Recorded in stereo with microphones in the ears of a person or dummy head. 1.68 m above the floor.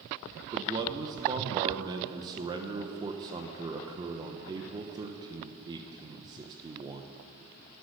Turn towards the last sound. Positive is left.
turn(degrees=-15)  # may be behind; listen again after turning